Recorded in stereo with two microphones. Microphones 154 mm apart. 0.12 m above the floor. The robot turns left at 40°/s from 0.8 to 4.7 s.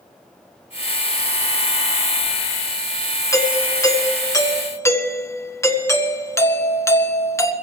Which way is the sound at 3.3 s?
20° left (ahead or behind).